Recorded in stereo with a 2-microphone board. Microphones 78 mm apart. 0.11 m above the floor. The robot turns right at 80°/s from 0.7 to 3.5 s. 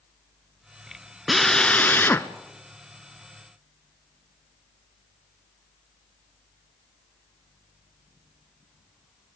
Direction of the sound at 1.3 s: 5° right.